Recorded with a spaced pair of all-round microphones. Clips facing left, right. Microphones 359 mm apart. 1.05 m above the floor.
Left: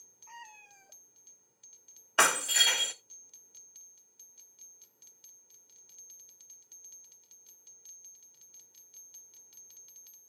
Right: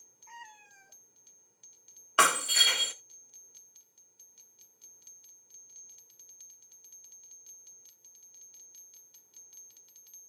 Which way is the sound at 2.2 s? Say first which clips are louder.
Even; 5° right (ahead or behind).